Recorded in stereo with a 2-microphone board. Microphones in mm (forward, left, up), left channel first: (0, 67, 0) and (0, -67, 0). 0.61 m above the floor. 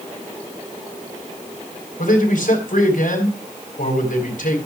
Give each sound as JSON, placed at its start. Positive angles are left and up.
{"t": 2.0, "sound": "a man speaking", "side_deg": 75, "distance_m": 3.5}